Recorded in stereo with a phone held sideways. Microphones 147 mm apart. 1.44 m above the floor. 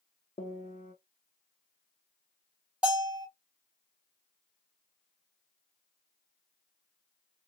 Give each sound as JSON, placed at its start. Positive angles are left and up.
{"t": 0.4, "sound": "a piano", "side_deg": 55, "distance_m": 0.7}
{"t": 2.8, "sound": "a bell", "side_deg": -5, "distance_m": 1.8}